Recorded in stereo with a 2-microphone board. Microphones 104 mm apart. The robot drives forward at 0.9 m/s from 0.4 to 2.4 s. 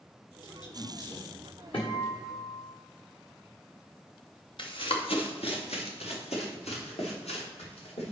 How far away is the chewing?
No chewing in this recording.